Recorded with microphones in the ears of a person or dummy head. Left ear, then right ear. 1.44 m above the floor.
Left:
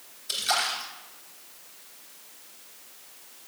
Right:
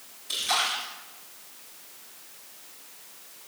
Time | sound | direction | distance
0.3 | a splash | 70° left (ahead or behind) | 3.5 m